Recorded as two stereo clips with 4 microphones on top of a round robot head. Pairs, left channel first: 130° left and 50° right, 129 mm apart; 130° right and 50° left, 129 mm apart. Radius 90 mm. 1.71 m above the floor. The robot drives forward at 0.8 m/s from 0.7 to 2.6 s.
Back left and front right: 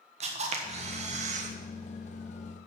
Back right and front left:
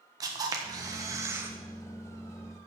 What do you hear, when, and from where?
0.2 s a camera shutter: 10° right, 1.4 m; by 1.6 s 25° right, 0.8 m